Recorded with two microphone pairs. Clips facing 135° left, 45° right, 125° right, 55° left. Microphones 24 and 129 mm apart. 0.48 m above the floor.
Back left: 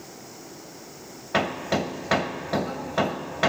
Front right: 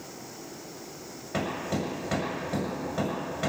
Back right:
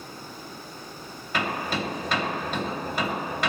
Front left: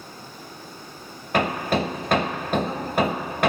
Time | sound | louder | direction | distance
1.3 | hammering | back left 6 dB, front left 6 dB | 90° left | 1.0 m